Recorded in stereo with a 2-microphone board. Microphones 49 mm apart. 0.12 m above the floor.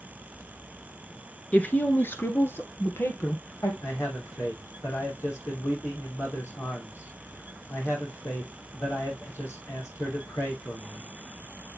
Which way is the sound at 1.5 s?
25° left (ahead or behind).